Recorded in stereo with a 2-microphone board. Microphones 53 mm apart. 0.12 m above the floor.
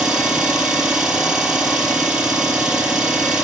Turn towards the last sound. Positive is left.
turn(degrees=-15)  # may be behind; listen again after turning